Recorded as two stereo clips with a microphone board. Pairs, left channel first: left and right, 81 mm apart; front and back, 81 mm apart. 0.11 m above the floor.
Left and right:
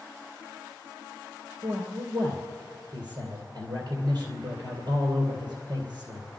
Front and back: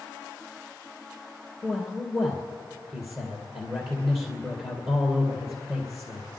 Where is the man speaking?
115° right, 2.5 m.